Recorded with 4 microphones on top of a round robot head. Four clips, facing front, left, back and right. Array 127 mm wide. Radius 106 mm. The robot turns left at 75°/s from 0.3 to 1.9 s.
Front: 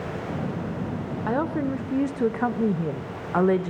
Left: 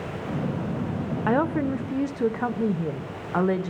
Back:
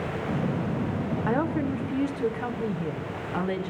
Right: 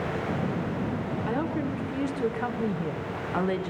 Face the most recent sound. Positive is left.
turn(degrees=30)